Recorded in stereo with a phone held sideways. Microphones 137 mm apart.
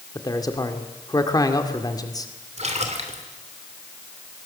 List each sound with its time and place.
0.1 s a man speaking: 30° left (ahead or behind), 2 m
2.6 s a splash: 55° right (ahead or behind), 2.5 m